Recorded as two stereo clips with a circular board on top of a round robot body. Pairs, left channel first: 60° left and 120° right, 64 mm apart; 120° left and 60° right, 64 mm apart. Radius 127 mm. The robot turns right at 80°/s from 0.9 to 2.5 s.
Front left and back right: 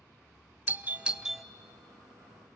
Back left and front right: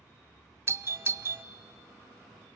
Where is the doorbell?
70° right, 0.7 m; by 1.4 s 30° right, 0.7 m.